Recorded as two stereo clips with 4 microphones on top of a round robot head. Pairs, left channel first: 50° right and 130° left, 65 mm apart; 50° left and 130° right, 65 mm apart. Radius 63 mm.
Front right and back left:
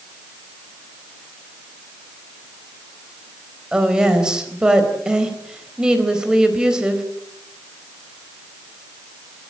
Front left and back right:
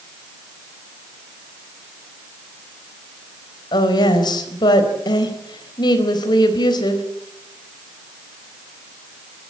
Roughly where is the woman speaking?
Ahead left.